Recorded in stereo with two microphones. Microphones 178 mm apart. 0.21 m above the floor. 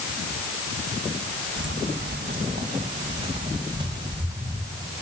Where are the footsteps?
75° right (ahead or behind), 1.7 m; by 4.9 s 15° right (ahead or behind), 3.5 m.